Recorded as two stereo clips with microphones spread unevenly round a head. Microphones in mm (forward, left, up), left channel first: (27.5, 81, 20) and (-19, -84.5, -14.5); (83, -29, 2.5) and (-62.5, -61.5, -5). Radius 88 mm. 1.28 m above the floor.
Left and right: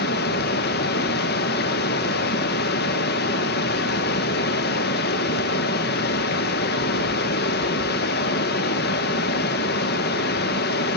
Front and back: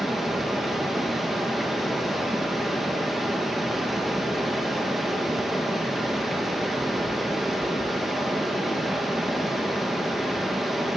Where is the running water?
100° left, 0.7 m.